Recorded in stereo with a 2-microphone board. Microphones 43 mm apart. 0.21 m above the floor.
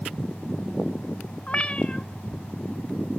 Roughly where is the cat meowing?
Left.